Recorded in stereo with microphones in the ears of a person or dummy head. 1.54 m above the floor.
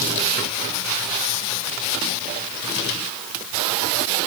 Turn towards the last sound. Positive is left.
No sound to turn to.